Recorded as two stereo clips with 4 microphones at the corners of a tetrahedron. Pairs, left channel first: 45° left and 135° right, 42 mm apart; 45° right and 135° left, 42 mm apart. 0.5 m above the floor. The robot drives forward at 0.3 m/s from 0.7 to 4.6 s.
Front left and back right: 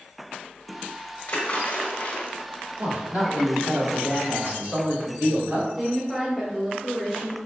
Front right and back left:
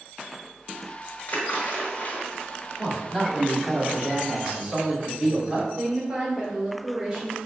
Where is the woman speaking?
150° left, 1.2 m.